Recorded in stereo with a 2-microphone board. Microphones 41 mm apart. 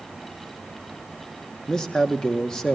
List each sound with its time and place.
1.7 s a man speaking: 20° left (ahead or behind), 1.5 m